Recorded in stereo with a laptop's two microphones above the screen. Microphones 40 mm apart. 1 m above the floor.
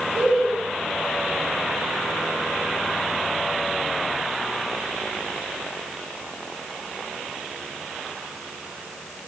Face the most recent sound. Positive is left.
turn(degrees=-15)  # may be behind; listen again after turning